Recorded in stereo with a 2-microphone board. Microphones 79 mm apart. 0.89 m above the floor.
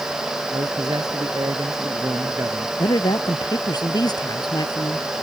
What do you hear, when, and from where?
0.5 s a man speaking: 55° right (ahead or behind); by 2.7 s 45° right (ahead or behind)
2.8 s a woman speaking: 60° left (ahead or behind)